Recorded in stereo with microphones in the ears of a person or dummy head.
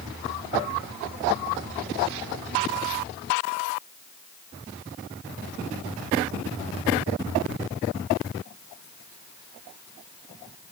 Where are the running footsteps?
No running footsteps in this recording.